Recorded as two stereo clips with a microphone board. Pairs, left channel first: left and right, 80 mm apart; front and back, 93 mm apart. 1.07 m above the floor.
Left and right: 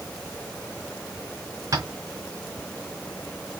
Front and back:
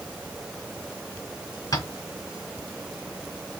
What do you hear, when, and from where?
1.7 s tapping: 45° right, 2.5 m